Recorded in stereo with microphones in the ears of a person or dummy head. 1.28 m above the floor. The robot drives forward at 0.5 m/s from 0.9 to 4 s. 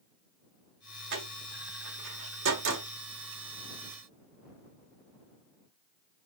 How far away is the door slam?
About 2.5 m.